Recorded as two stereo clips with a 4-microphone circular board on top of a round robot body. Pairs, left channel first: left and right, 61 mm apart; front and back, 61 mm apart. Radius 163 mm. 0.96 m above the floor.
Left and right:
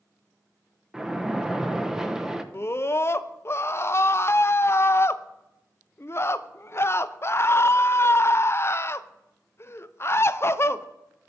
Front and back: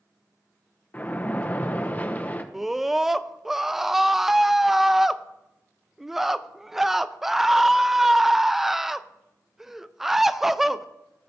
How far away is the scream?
About 0.5 m.